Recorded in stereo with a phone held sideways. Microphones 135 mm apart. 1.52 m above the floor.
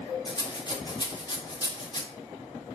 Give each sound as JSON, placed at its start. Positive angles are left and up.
{"t": 0.2, "sound": "a rattle", "side_deg": 35, "distance_m": 1.1}